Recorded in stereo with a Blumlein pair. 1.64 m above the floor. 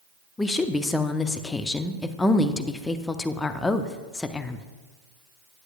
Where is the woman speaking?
10° left, 0.5 m.